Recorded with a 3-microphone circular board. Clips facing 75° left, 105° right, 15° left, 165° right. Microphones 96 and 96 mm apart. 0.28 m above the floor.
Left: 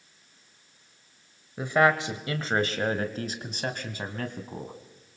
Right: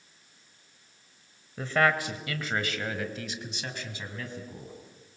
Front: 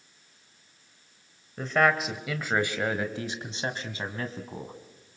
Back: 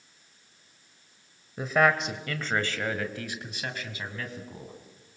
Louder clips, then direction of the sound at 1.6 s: Left 3 dB, even; 125° left.